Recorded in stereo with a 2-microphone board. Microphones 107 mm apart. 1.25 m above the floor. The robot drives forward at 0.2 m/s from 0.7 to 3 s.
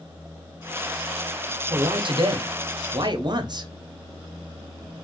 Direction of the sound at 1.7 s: 50° right (ahead or behind).